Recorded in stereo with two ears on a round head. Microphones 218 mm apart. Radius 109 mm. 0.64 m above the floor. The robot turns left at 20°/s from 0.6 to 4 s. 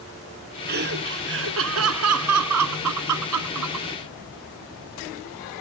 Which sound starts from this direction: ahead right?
Laughter, at 0.7 s.